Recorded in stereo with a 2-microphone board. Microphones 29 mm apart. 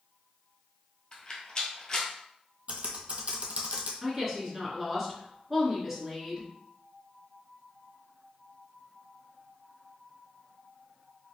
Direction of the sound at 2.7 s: 55° right (ahead or behind).